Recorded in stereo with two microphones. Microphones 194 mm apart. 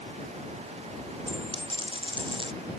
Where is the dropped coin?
25° right (ahead or behind).